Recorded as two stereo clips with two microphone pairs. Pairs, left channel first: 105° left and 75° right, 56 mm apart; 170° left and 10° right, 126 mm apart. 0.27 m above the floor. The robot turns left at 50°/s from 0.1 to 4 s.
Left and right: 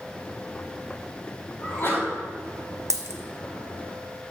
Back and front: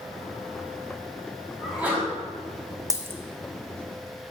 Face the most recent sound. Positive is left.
turn(degrees=-130)